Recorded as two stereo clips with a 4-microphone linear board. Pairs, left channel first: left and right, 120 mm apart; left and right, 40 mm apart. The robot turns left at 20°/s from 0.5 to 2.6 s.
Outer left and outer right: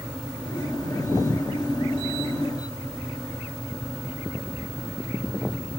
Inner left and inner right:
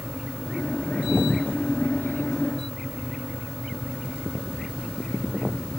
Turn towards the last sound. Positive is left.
No sound to turn to.